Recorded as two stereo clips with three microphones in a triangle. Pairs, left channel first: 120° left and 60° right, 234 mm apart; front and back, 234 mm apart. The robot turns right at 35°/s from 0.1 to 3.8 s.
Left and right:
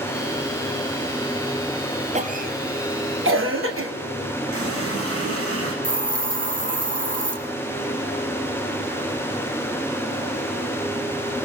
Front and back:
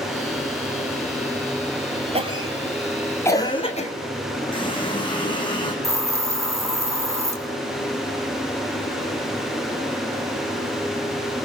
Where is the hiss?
105° right, 2.5 m.